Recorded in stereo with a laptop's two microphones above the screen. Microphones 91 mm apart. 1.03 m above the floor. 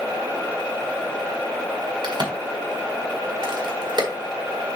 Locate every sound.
2.0 s a crack: 50° right (ahead or behind), 1.5 m